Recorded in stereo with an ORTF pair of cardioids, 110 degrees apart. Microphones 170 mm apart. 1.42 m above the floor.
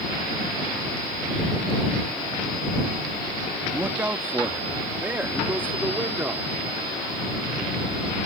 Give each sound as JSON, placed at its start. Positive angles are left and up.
{"t": 3.7, "sound": "a man speaking", "azimuth_deg": -10}